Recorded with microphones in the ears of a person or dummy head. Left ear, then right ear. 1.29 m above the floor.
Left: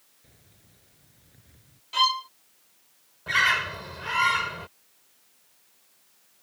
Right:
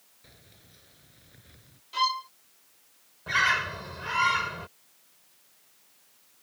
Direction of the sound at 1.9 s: 25° left (ahead or behind).